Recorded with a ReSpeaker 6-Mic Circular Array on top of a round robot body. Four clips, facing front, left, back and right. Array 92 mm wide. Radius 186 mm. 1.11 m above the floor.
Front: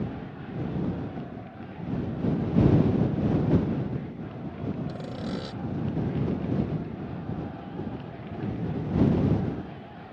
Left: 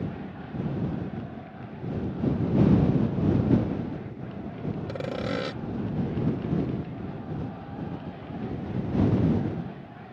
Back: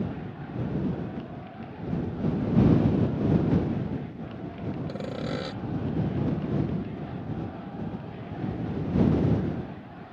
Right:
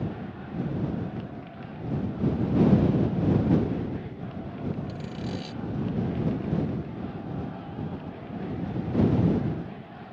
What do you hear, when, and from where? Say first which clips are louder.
4.9 s sawing: left 4 dB, back 2 dB; 100° left